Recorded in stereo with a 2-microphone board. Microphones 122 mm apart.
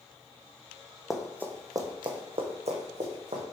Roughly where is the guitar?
I don't hear a guitar.